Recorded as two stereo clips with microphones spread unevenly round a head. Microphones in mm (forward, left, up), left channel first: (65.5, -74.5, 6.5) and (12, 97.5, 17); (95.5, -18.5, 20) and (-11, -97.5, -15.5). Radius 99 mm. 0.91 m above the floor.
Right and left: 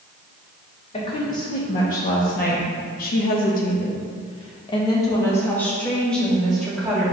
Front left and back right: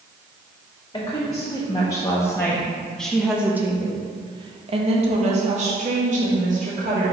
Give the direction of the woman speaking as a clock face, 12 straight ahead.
1 o'clock.